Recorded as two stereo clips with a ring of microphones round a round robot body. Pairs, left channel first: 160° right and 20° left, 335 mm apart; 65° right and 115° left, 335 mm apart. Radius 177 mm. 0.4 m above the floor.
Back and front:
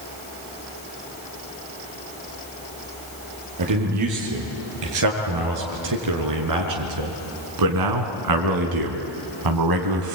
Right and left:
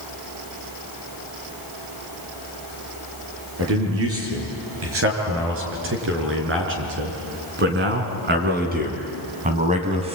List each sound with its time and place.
3.6 s a man speaking: 60° left, 7 m; by 10.2 s 40° left, 2.5 m